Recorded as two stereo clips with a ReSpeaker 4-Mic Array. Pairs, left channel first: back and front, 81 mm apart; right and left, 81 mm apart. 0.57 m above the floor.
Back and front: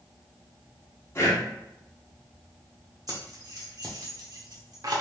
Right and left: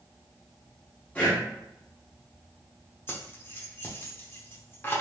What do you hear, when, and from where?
1.1 s breathing: 150° right, 1.4 m
3.1 s keys jangling: 30° right, 0.9 m